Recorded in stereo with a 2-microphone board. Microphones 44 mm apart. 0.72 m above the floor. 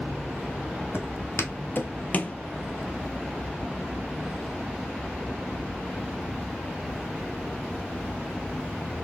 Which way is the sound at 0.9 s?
65° left (ahead or behind).